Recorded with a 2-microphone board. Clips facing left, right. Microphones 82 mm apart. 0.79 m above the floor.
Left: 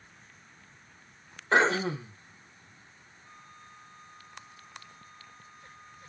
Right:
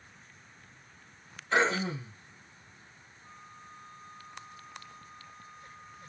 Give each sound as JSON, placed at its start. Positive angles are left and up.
{"t": 1.5, "sound": "throat clearing", "side_deg": 55, "distance_m": 1.0}
{"t": 3.2, "sound": "a flute", "side_deg": -5, "distance_m": 1.2}